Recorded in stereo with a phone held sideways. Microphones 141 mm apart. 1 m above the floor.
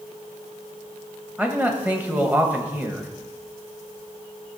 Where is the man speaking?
10° right (ahead or behind), 1.3 m.